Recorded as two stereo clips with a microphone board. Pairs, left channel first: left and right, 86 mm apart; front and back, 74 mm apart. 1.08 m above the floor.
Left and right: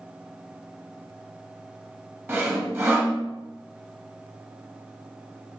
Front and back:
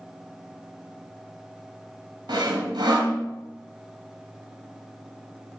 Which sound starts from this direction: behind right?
Sawing, at 2.3 s.